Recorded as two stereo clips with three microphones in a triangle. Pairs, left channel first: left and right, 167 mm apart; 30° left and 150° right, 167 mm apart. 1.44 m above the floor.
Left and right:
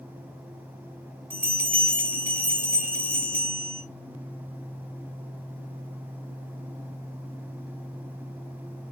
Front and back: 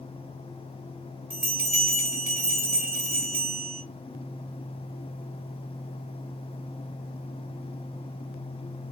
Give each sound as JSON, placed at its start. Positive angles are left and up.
{"t": 1.3, "sound": "a bell", "azimuth_deg": -120, "distance_m": 2.5}